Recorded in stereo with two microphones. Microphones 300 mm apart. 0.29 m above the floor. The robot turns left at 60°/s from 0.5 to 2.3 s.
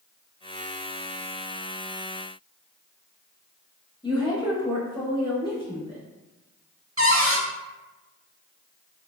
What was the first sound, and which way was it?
A woman speaking, 15° left (ahead or behind).